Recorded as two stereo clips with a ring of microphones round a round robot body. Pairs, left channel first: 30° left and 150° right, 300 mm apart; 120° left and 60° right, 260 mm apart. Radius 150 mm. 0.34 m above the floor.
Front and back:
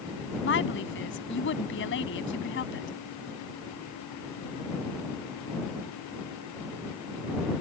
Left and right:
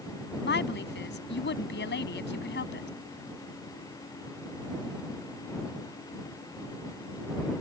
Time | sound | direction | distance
0.4 | a woman speaking | 80° left | ?